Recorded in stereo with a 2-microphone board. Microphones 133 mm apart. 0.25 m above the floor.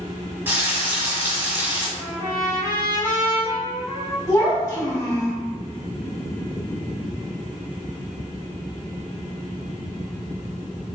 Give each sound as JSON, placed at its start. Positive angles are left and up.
{"t": 0.5, "sound": "frying", "side_deg": -15, "distance_m": 1.0}
{"t": 2.0, "sound": "a trumpet", "side_deg": 70, "distance_m": 1.2}
{"t": 4.3, "sound": "a child speaking", "side_deg": 25, "distance_m": 1.2}